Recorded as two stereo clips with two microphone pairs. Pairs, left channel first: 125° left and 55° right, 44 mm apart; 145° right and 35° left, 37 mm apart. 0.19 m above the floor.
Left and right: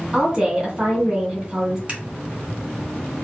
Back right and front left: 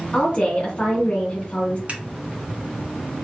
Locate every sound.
0.1 s a woman speaking: 115° right, 1.7 m
1.9 s scissors: straight ahead, 2 m